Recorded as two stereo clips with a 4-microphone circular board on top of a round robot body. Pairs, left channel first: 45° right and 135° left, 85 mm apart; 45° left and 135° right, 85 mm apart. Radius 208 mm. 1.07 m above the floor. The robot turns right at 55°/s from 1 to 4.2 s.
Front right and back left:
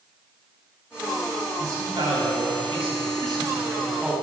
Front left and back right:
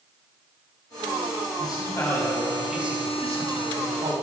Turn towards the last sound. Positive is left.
turn(degrees=-135)